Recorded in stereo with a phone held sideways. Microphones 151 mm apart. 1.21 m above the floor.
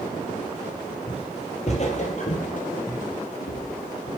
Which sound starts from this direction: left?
Footsteps, at 1.1 s.